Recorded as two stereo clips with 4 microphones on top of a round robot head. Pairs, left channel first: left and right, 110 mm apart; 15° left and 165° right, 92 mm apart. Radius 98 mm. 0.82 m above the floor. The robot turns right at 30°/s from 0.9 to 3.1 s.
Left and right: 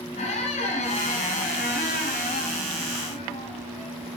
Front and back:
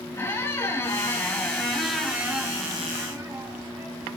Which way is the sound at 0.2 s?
75° left.